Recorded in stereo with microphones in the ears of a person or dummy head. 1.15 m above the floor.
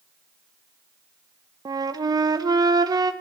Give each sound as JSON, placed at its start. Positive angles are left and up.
{"t": 1.6, "sound": "a flute", "side_deg": -20, "distance_m": 0.9}